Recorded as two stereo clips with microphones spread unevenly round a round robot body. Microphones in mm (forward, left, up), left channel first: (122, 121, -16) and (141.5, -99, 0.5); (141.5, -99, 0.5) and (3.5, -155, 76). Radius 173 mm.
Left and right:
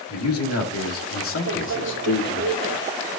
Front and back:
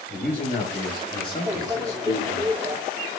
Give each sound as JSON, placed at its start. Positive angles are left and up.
{"t": 0.1, "sound": "a man speaking", "azimuth_deg": 105, "distance_m": 1.9}
{"t": 1.5, "sound": "a microwave", "azimuth_deg": -90, "distance_m": 1.7}